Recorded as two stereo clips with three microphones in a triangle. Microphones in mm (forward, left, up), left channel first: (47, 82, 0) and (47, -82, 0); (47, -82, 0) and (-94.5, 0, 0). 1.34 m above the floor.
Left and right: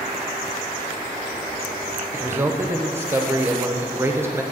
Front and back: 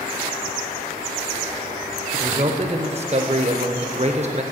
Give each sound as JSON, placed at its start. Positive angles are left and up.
{"t": 2.1, "sound": "a man speaking", "azimuth_deg": -165, "distance_m": 0.8}